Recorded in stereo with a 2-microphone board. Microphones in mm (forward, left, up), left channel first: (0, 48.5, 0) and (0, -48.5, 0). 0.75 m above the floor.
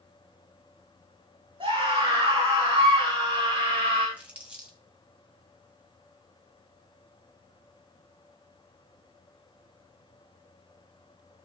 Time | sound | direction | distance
1.6 | a scream | 60° right (ahead or behind) | 7.5 m
4.2 | crumpling | 10° right (ahead or behind) | 4.5 m